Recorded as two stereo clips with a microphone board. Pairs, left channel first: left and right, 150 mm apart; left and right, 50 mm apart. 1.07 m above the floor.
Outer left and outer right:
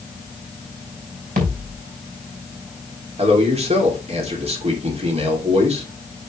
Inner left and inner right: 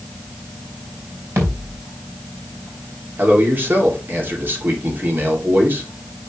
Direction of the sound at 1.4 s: 60° right (ahead or behind).